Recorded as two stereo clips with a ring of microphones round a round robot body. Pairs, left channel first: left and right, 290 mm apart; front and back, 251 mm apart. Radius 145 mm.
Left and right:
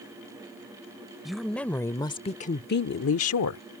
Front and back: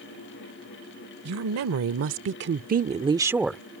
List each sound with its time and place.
1.2 s a woman speaking: straight behind; by 3.6 s 85° left